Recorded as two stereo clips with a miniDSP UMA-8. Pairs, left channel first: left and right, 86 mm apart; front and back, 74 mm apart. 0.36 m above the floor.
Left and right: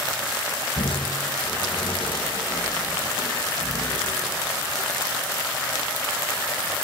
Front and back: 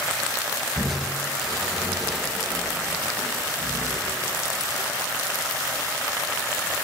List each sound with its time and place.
0.8 s crushing: 90° left, 3.5 m